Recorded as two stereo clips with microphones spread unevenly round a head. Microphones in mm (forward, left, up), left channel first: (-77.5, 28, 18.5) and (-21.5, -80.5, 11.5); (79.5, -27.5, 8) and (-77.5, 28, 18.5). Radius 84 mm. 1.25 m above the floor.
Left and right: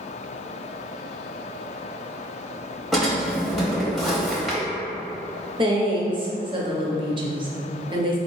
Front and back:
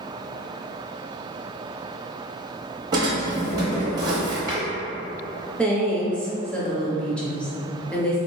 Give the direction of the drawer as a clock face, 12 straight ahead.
5 o'clock.